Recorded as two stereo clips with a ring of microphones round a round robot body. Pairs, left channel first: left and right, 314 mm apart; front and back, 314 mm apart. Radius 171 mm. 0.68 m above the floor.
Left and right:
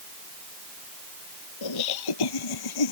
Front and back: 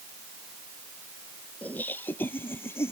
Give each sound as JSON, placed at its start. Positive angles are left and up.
{"t": 1.6, "sound": "laughter", "azimuth_deg": 85}